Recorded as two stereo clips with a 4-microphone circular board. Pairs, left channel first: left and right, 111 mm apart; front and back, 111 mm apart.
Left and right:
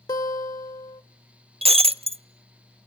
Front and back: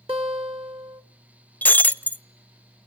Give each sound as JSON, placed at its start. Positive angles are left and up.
{"t": 0.1, "sound": "a guitar", "azimuth_deg": 140, "distance_m": 1.6}
{"t": 1.6, "sound": "breaking glass", "azimuth_deg": -75, "distance_m": 0.5}